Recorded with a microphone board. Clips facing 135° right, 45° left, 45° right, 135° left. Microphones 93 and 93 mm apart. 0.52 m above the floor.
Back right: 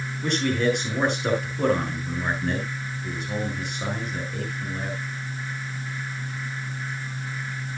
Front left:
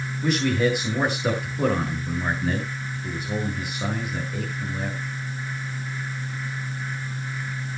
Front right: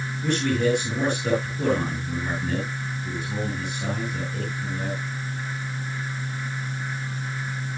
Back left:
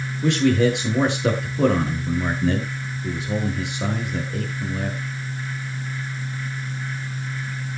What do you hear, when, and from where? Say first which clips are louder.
0.2 s a man speaking: front left 1 dB, back left 5 dB; 130° left, 7 m